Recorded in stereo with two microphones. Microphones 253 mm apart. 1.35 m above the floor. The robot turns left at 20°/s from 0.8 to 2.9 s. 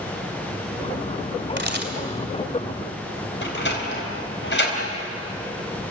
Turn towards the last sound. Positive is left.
turn(degrees=45)  # may be behind; listen again after turning